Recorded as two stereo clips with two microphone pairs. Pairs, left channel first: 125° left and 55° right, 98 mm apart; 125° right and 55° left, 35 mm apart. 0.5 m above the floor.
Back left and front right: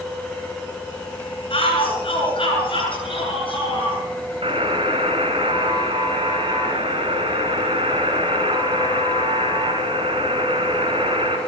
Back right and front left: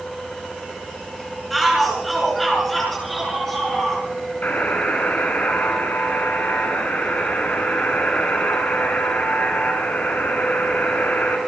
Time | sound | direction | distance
1.5 | a shout | 150° left | 5.5 m
4.4 | a buzzer | 80° right | 4.5 m